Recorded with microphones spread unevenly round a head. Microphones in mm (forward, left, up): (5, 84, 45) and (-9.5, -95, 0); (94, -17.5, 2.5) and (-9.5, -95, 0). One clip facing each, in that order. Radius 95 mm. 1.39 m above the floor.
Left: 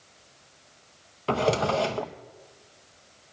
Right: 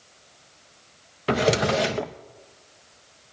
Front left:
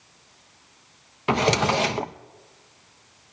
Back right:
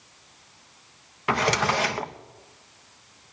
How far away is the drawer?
About 0.7 m.